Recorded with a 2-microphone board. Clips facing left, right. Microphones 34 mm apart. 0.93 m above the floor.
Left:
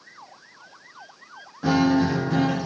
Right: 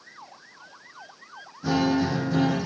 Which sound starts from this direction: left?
A guitar, at 1.6 s.